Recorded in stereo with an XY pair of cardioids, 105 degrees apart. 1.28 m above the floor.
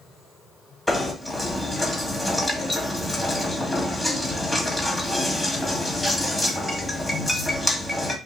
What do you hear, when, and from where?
0.9 s knocking: 5° left, 2 m